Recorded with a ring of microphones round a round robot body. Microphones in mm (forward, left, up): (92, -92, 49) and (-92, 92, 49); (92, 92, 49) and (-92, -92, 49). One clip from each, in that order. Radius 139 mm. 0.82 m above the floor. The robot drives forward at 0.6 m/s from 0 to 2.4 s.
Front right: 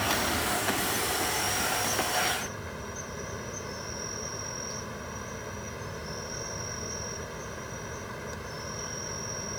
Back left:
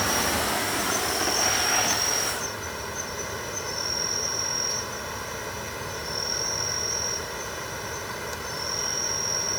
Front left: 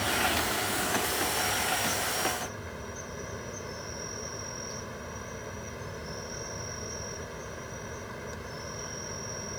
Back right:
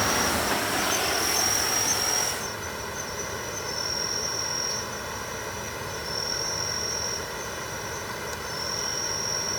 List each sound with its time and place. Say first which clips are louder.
0.0 s an insect: back left 3 dB, back right 3 dB; 165° right; by 9.6 s 175° right